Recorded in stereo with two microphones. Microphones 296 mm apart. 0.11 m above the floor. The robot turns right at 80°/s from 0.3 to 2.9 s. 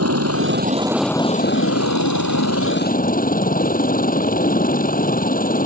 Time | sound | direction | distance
0.0 | a helicopter | 60° right | ?